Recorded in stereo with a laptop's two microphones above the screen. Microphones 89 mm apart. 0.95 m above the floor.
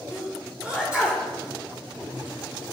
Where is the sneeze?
15° right (ahead or behind), 4 m.